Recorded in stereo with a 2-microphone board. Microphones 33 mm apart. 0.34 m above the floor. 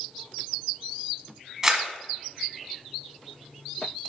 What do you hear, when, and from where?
1.6 s a camera shutter: 15° right (ahead or behind), 1.4 m